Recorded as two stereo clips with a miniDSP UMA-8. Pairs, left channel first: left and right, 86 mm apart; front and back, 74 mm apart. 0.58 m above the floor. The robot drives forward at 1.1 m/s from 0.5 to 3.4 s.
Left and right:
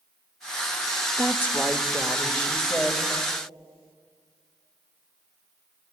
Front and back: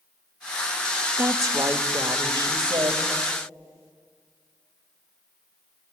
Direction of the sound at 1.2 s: 150° left.